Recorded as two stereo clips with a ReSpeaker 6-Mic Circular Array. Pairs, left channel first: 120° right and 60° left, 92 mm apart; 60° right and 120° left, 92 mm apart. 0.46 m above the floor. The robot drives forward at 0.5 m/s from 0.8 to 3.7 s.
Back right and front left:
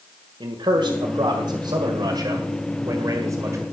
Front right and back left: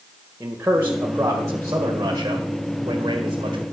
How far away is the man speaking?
About 2.0 m.